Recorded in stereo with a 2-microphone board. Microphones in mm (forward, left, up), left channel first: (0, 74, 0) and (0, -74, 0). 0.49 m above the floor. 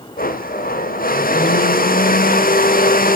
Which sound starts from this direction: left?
A blender, at 0.2 s.